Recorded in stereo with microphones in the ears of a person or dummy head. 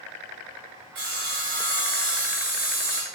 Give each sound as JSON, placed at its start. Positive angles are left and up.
{"t": 0.9, "sound": "sawing", "side_deg": -60, "distance_m": 1.2}